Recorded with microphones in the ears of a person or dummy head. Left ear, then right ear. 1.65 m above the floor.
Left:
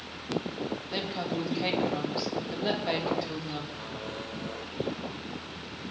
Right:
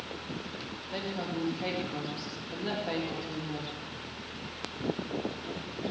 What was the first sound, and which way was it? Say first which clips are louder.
A woman speaking: left 1 dB; 25° left (ahead or behind).